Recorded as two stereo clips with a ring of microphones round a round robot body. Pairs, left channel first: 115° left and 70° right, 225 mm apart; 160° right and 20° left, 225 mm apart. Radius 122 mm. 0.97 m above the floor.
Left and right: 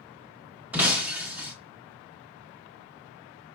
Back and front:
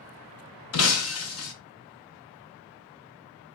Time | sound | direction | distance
0.7 | breaking glass | 150° right | 0.7 m